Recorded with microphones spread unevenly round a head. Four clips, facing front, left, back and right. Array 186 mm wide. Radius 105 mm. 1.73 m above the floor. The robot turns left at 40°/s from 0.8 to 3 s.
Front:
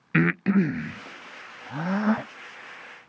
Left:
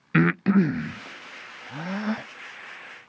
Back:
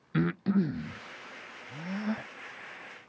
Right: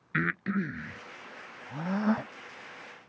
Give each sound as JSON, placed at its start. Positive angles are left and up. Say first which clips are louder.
{"t": 0.1, "sound": "breathing", "louder": "left 10 dB, front 6 dB", "azimuth_deg": 55}